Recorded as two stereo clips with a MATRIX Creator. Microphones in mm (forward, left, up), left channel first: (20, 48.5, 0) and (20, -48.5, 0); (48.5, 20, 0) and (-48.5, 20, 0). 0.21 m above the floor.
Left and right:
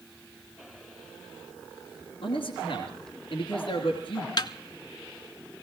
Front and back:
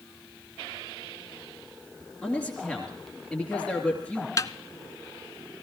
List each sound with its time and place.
2.2 s a man speaking: 95° left, 3 m
4.4 s a snare drum: 55° left, 0.5 m